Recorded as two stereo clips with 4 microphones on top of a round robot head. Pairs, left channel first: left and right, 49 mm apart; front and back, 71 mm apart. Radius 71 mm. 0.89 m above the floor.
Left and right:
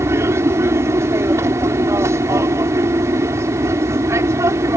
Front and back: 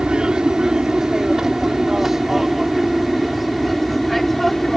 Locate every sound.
0.0 s an aircraft: 100° right; by 4.8 s 90° right